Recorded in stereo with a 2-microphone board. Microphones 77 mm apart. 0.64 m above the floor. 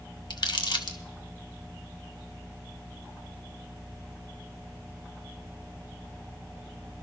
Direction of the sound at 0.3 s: 75° left (ahead or behind).